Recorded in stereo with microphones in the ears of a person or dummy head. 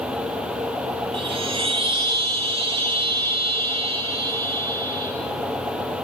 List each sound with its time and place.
1.1 s a chime: 25° right (ahead or behind), 1.1 m